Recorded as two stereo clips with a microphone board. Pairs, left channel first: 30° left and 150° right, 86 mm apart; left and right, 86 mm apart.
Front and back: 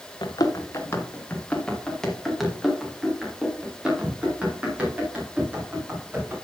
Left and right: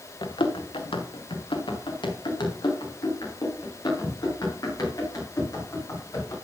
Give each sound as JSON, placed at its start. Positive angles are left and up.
{"t": 0.2, "sound": "running footsteps", "azimuth_deg": 65, "distance_m": 1.8}